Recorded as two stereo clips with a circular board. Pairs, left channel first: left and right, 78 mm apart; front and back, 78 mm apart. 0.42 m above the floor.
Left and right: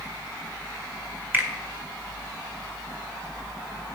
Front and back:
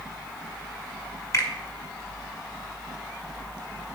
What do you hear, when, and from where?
1.3 s a finger snap: 35° right, 1.3 m